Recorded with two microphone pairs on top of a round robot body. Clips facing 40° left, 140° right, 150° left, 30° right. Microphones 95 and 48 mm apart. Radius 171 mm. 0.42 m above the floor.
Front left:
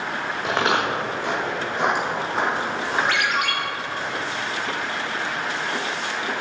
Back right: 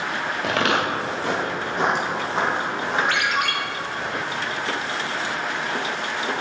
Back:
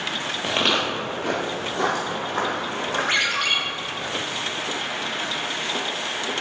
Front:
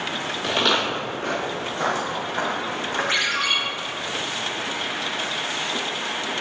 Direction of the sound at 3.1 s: 170° left.